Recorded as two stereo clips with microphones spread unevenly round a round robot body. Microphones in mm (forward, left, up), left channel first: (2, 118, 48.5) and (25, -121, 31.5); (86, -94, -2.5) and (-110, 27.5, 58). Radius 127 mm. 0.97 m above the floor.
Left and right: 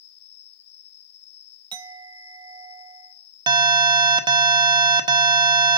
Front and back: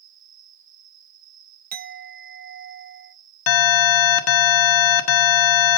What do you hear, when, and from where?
0.0 s an insect: 90° left, 0.8 m
1.7 s a clink: 155° right, 0.7 m
3.5 s an alarm: 10° right, 1.1 m